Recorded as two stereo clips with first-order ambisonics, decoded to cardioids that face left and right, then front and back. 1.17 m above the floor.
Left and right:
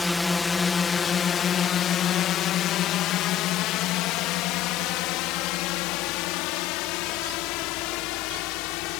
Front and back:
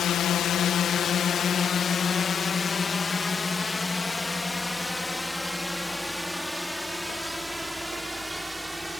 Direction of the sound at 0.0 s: 10° left.